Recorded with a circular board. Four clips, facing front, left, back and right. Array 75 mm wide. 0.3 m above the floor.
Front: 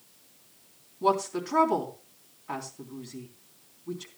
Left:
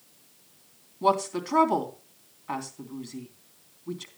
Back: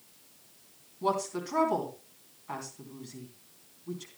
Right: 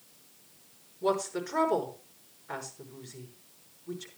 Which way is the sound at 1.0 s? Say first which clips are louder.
Left 5 dB, front 4 dB; 80° left.